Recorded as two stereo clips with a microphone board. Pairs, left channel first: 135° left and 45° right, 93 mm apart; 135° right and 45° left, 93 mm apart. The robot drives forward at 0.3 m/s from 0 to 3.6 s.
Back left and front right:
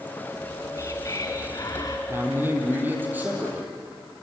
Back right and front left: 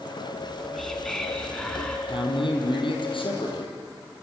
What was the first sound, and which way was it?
Whispering, 135° left.